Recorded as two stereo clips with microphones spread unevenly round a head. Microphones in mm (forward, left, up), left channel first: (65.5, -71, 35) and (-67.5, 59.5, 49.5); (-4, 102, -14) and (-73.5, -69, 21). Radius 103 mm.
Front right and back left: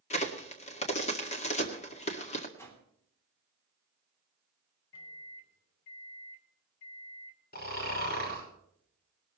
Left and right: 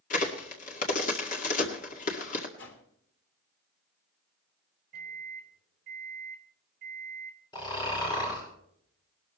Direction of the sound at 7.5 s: 5° right.